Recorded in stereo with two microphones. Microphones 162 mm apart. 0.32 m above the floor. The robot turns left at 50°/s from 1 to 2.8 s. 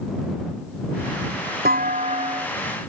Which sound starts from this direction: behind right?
A clunk, at 1.6 s.